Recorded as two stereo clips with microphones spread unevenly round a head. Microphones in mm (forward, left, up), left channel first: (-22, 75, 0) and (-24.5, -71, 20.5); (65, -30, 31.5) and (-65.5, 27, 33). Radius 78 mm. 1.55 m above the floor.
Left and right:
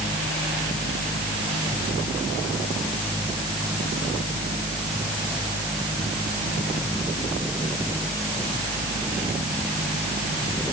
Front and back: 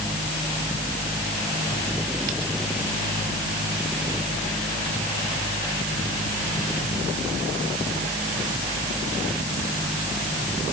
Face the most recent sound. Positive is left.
No sound to turn to.